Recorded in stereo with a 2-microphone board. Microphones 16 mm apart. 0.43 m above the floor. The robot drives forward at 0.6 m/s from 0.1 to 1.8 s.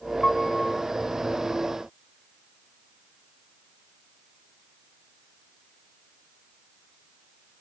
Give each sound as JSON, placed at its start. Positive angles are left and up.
{"t": 0.2, "sound": "a piano", "side_deg": 40, "distance_m": 1.0}